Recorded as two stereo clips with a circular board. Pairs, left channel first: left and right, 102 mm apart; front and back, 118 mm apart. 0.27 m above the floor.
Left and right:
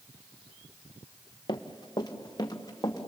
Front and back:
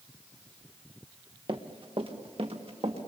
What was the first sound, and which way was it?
Running footsteps, 135° left.